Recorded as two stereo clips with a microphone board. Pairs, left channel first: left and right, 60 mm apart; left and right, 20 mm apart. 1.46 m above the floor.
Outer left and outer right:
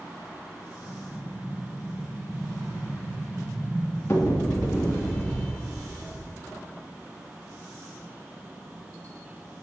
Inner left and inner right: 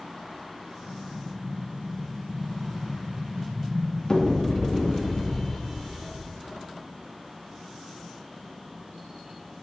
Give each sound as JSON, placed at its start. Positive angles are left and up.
{"t": 0.8, "sound": "an explosion", "side_deg": 40, "distance_m": 3.0}